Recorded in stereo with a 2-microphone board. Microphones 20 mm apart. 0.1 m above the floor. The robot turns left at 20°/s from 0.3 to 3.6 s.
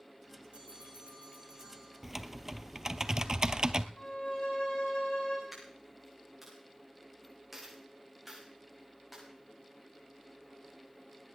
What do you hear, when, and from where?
0.5 s a bell: 70° right (ahead or behind), 9 m; by 2.0 s 40° right (ahead or behind), 9 m
2.0 s typing on a keyboard: 10° right, 0.6 m; by 3.9 s 45° right, 0.6 m
4.0 s a violin: 70° left (ahead or behind), 10 m
5.5 s a dropped coin: 10° right (ahead or behind), 8 m